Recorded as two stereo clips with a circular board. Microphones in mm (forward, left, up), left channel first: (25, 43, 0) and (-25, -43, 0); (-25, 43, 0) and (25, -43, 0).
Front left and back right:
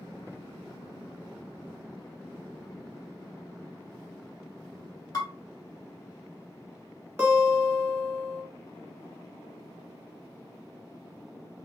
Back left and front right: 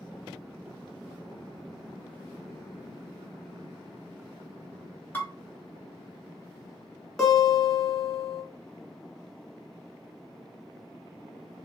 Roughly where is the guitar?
Behind right.